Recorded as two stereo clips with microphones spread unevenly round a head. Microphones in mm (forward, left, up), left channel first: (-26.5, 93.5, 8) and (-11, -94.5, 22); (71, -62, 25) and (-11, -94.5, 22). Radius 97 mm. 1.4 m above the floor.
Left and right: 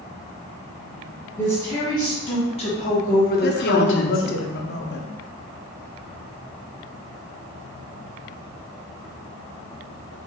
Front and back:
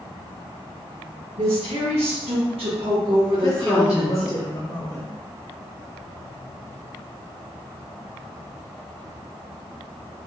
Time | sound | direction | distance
1.4 | a woman speaking | 170° left | 1.6 m
3.4 | a woman speaking | 75° left | 0.7 m